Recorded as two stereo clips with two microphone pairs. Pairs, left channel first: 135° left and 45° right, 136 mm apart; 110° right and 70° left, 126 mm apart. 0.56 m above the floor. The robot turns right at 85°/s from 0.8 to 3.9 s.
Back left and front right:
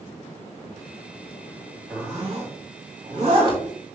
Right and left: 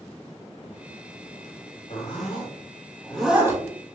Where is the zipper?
130° right, 2.5 m; by 3.6 s 15° left, 2.5 m.